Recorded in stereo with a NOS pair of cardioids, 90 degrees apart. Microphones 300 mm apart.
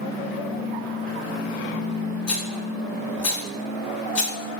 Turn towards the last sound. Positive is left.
turn(degrees=55)